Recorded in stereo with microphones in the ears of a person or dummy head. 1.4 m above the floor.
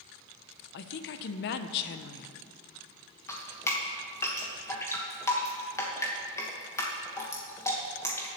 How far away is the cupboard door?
I don't hear a cupboard door.